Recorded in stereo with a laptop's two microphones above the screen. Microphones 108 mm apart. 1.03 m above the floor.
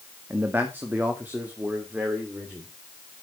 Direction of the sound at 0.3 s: 20° right (ahead or behind).